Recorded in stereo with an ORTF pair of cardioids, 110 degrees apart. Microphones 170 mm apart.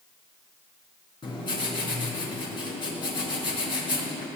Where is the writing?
30° left, 4.5 m.